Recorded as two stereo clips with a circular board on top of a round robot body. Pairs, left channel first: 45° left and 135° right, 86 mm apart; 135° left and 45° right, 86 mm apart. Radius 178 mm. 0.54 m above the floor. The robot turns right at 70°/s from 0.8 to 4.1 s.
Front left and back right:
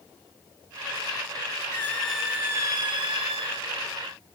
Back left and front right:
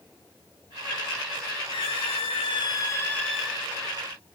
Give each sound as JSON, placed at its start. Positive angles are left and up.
{"t": 1.7, "sound": "a squeak", "azimuth_deg": 105, "distance_m": 2.0}